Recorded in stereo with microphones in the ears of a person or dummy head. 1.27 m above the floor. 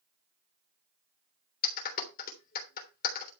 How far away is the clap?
About 3 m.